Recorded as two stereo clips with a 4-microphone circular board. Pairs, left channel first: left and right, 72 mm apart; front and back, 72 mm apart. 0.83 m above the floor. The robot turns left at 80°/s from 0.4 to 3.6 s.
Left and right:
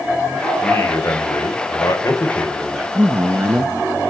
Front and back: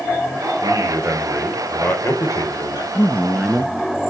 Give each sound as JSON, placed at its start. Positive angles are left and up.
{"t": 0.6, "sound": "a man speaking", "azimuth_deg": 165, "distance_m": 3.0}
{"t": 3.0, "sound": "a man speaking", "azimuth_deg": -40, "distance_m": 1.0}